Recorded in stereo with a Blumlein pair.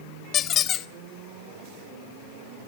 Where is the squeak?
30° left, 0.8 m.